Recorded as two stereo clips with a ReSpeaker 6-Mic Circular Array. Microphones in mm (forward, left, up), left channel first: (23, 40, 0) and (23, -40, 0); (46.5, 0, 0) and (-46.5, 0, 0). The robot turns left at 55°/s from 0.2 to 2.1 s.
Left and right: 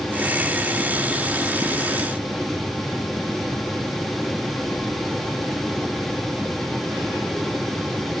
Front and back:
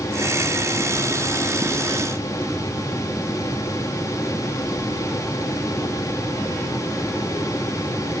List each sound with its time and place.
Only background noise.